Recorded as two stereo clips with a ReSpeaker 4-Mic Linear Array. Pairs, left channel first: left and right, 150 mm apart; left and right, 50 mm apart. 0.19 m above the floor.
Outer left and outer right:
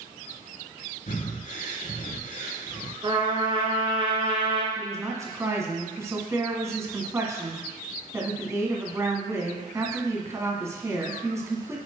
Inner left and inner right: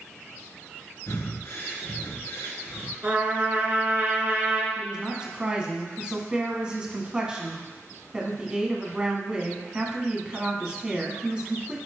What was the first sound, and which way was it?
Breathing, 60° left (ahead or behind).